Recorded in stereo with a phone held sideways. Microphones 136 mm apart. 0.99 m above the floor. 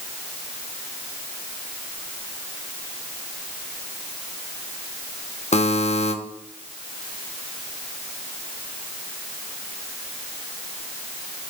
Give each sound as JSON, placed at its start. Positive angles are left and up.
{"t": 5.5, "sound": "a buzzer", "side_deg": 60, "distance_m": 1.0}